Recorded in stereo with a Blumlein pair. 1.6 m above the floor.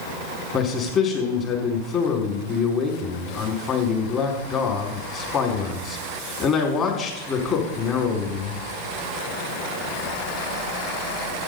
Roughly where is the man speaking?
Ahead left.